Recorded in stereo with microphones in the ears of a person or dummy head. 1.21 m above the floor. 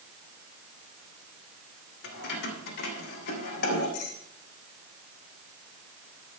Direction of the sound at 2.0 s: 65° left (ahead or behind).